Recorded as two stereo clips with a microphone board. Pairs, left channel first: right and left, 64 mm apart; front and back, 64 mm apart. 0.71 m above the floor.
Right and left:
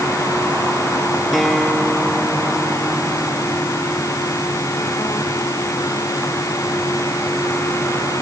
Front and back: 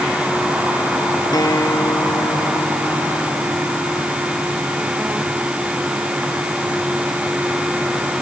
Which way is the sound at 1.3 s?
5° right.